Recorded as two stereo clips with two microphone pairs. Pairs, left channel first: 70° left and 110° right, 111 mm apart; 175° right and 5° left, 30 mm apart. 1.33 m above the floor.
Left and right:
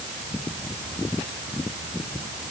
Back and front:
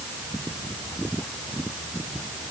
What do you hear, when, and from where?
Only background noise.